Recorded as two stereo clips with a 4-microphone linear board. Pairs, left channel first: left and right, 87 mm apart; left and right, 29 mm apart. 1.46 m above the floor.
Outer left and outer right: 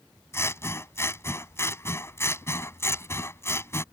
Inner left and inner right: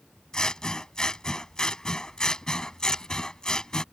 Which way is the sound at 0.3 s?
30° left (ahead or behind).